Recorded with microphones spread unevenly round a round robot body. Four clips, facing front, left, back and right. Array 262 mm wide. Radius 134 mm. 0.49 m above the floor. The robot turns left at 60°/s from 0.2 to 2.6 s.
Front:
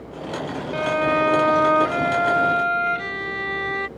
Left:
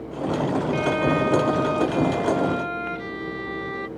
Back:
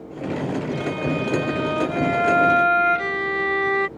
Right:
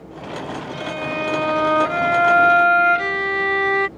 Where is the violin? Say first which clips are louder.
Left 3 dB, front 4 dB; 20° left; by 3.9 s 95° right.